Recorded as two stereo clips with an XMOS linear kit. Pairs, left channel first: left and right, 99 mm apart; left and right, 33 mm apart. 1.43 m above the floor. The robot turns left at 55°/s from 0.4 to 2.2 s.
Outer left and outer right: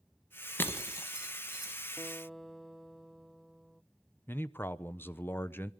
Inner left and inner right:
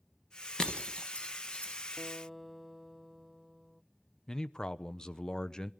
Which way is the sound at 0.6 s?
20° left (ahead or behind).